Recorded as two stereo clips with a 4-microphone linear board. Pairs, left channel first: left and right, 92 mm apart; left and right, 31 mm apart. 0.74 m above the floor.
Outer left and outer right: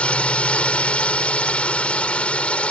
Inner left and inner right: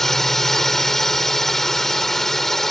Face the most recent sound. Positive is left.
turn(degrees=10)  # may be behind; listen again after turning